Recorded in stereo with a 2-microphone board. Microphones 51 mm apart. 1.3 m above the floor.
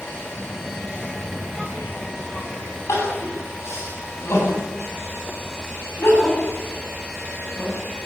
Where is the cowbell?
No cowbell in this recording.